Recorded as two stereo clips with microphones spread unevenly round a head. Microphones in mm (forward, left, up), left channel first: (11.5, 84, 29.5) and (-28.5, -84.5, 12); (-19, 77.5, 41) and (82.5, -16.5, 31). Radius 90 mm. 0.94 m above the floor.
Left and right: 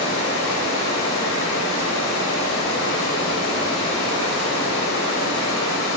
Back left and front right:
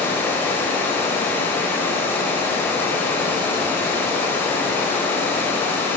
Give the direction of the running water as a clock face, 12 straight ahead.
10 o'clock.